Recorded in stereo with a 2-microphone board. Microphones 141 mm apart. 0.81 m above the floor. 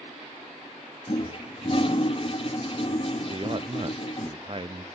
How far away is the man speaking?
About 0.6 m.